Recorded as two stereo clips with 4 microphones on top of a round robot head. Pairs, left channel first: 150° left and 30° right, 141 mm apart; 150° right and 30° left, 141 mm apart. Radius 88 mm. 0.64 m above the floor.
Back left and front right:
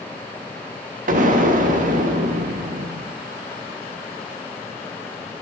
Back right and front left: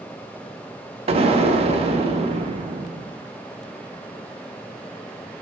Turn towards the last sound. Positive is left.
turn(degrees=-15)